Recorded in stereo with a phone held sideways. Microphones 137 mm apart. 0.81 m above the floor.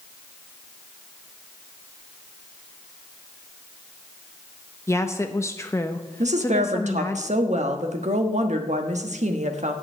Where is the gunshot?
No gunshot in this recording.